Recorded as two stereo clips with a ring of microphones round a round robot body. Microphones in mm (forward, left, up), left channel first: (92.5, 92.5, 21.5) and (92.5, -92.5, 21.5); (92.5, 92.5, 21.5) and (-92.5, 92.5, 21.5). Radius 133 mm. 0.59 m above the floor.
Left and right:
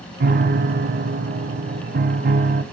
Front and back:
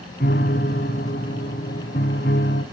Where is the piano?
60° right, 1.6 m.